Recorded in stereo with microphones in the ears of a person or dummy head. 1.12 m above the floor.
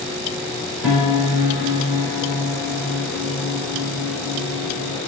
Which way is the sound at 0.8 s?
Centre (ahead or behind).